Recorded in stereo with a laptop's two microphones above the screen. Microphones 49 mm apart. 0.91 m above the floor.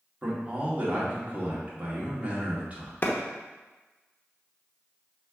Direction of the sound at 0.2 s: 30° right (ahead or behind).